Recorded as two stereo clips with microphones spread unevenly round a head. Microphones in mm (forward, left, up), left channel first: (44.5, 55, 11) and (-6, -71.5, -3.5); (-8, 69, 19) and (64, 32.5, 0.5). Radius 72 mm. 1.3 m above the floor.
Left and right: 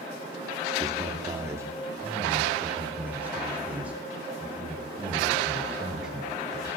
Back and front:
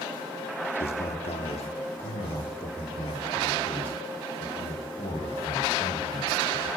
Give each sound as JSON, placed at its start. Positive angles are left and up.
{"t": 0.8, "sound": "a man speaking", "azimuth_deg": 180, "distance_m": 2.5}